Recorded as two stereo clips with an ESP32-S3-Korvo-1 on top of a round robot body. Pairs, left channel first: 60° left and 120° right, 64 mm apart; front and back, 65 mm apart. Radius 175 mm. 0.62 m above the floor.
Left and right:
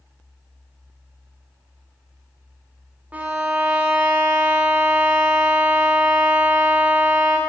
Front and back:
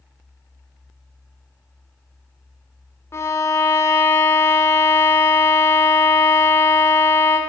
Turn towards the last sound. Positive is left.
turn(degrees=-50)